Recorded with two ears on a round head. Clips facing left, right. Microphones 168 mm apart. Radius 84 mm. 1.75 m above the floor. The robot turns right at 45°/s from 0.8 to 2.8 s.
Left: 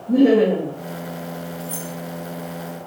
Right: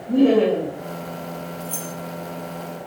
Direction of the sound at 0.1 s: 15° left (ahead or behind).